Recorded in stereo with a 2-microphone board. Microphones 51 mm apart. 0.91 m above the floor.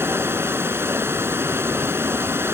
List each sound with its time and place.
0.0 s running water: 50° right (ahead or behind)